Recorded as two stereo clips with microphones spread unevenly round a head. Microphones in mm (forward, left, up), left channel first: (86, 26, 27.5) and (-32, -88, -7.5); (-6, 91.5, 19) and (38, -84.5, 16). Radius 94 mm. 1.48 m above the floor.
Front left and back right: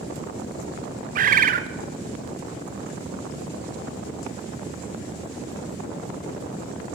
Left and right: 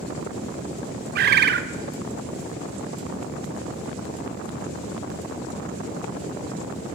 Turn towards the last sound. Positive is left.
turn(degrees=-110)